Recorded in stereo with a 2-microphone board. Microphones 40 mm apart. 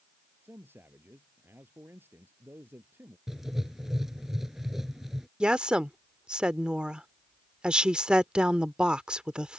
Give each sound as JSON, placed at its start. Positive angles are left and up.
{"t": 0.4, "sound": "a man speaking", "side_deg": -65}
{"t": 3.3, "sound": "writing", "side_deg": -10}
{"t": 5.4, "sound": "a woman speaking", "side_deg": -25}